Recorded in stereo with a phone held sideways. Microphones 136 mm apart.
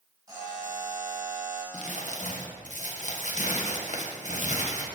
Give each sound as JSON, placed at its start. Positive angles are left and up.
{"t": 0.3, "sound": "a buzzer", "side_deg": -30, "distance_m": 2.0}
{"t": 1.7, "sound": "crumpling", "side_deg": 65, "distance_m": 0.6}